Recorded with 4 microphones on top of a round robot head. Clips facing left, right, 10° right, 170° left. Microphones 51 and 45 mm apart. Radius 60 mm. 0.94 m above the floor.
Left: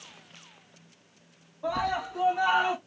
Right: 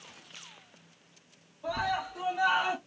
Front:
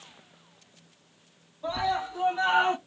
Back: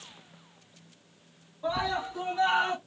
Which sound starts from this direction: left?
A scream, at 1.6 s.